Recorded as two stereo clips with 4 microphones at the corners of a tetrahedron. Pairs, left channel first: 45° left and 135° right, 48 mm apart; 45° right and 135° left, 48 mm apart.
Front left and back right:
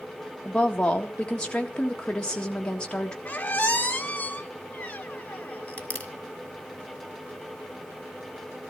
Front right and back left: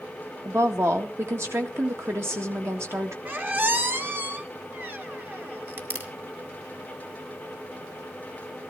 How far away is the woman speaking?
About 1.7 m.